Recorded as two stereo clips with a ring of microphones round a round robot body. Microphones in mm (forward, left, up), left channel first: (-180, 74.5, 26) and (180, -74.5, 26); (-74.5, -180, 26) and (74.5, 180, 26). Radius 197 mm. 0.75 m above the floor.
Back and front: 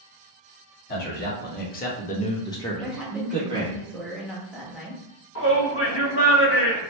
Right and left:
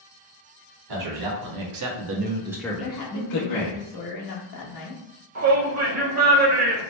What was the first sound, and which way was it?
A man speaking, 95° left.